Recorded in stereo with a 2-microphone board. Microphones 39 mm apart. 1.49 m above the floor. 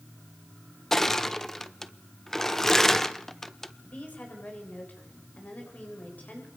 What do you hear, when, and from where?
0.9 s crushing: 10° left (ahead or behind), 0.9 m
3.8 s a woman speaking: 40° left (ahead or behind), 8 m